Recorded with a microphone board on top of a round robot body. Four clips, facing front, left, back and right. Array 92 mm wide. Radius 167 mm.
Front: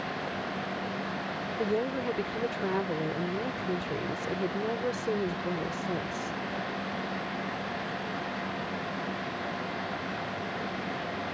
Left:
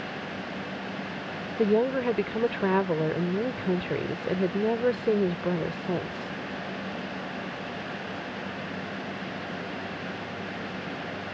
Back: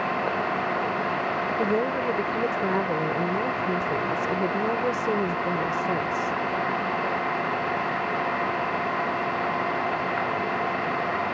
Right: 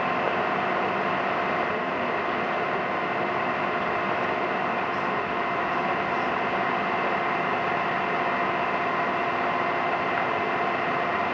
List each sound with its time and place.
0.0 s an engine running: 130° right
1.6 s a woman speaking: 115° left